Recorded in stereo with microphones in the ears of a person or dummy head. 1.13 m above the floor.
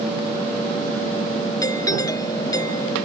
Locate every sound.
1.6 s a doorbell: 15° left (ahead or behind)